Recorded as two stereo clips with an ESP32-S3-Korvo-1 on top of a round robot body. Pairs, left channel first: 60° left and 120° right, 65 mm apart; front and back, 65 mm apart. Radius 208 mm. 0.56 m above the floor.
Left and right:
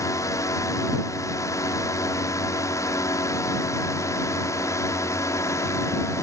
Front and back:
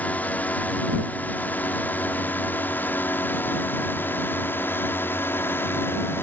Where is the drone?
60° left; by 6.2 s 45° left.